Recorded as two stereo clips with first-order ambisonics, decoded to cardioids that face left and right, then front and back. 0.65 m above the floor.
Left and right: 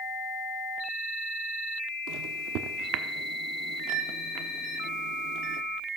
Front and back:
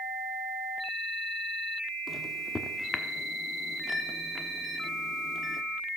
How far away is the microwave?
About 1.1 m.